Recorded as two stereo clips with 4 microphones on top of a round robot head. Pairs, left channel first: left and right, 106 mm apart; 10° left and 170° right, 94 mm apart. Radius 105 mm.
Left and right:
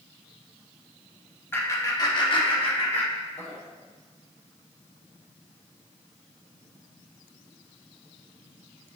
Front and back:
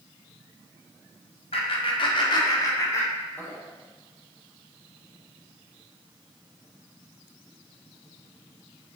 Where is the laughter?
20° left, 1.9 m; by 3.6 s 80° left, 3 m.